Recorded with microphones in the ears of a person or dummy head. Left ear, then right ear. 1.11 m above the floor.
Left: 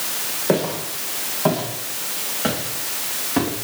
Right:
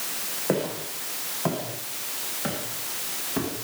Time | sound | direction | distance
0.5 | footsteps | 5° right (ahead or behind) | 5.5 m